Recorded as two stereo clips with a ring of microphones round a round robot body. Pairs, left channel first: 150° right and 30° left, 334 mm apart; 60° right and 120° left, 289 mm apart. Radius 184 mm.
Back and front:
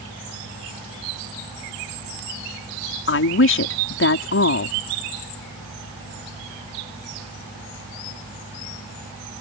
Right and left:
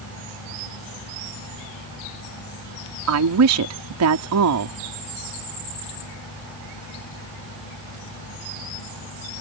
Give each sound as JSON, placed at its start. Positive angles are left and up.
{"t": 3.1, "sound": "a woman speaking", "azimuth_deg": 155}